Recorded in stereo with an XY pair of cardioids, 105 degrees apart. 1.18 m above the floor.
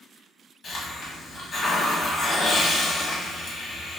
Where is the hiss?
55° left, 1.2 m.